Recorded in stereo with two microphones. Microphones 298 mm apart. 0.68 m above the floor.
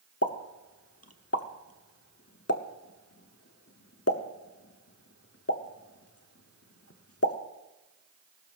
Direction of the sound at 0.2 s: 50° left (ahead or behind).